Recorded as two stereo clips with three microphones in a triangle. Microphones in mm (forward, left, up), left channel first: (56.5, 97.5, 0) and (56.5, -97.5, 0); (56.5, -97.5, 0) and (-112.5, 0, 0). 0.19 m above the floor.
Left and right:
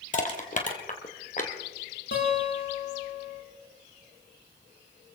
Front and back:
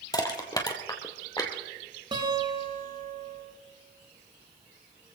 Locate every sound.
0.1 s crushing: 40° left, 2 m
2.1 s a guitar: 85° left, 6 m